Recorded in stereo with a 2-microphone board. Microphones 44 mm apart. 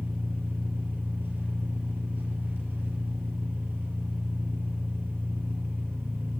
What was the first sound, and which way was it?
An engine running, 55° right (ahead or behind).